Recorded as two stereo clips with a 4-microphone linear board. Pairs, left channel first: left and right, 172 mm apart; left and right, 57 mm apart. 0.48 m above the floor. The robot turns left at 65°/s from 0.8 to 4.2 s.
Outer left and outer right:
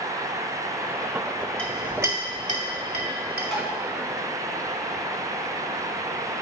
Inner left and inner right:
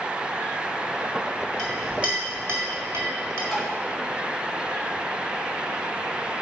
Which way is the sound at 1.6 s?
10° left (ahead or behind).